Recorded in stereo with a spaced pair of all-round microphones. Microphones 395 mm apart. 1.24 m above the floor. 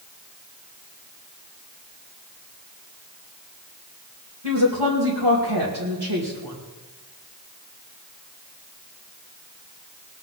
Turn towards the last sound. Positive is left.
turn(degrees=-85)